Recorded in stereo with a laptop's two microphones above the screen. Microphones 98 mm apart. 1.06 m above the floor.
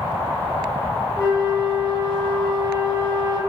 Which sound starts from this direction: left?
A flute, at 1.2 s.